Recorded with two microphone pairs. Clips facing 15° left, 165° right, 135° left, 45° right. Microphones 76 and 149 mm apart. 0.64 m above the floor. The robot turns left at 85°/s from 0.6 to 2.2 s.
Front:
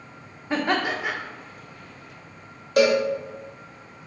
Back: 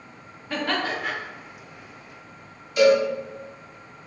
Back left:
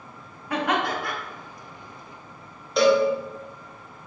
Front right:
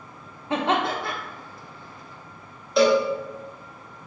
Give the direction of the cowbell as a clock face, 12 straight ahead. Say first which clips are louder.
Back 2 dB, even; 11 o'clock.